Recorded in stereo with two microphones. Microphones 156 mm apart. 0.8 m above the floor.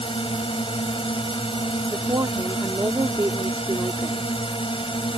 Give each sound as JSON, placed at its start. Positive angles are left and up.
{"t": 0.0, "sound": "a drone", "side_deg": 35}
{"t": 1.9, "sound": "a woman speaking", "side_deg": -20}